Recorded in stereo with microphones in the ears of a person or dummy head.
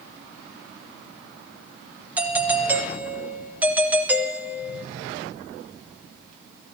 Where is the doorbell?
5° right (ahead or behind), 0.7 m.